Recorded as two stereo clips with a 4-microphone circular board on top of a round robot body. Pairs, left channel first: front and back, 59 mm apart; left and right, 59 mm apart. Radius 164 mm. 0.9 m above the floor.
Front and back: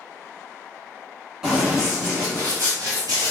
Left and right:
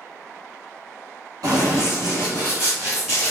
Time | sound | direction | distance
1.4 | running footsteps | 90° right | 1.2 m